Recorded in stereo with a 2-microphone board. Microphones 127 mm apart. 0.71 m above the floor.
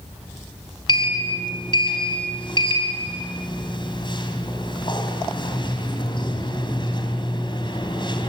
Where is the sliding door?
40° left (ahead or behind), 3.5 m.